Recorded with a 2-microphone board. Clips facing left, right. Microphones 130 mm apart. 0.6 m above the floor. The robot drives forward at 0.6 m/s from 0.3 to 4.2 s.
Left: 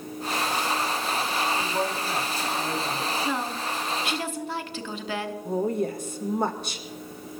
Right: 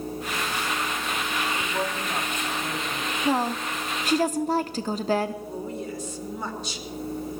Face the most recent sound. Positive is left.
turn(degrees=55)  # may be behind; listen again after turning